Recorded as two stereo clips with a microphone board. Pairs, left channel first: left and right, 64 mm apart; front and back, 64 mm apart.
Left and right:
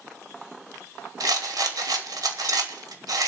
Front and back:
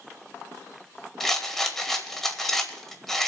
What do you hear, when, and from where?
1.2 s a rattle: 85° right, 1.5 m